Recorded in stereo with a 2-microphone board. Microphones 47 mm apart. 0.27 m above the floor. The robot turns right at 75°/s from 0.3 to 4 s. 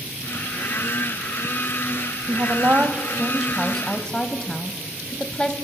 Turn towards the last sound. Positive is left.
turn(degrees=30)